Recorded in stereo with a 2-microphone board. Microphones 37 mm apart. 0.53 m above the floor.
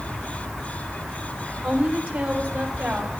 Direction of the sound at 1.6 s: 55° right (ahead or behind).